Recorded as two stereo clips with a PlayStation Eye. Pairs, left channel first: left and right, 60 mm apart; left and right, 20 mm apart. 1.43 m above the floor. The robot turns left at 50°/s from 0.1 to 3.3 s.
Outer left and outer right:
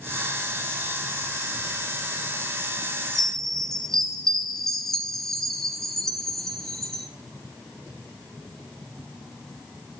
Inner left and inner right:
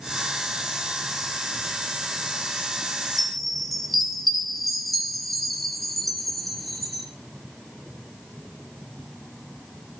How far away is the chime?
About 1.0 m.